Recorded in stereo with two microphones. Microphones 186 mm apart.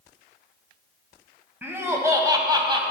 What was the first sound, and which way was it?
Laughter, 10° right (ahead or behind).